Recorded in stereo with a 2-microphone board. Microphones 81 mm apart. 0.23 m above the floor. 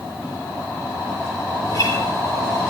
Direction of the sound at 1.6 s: 45° left (ahead or behind).